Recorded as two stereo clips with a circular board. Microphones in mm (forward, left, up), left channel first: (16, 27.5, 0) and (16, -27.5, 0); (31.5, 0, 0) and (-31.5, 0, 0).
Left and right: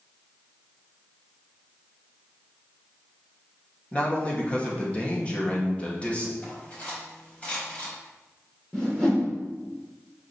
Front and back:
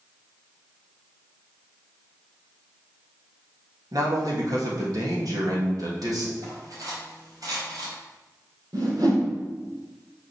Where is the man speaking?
160° left, 3 m.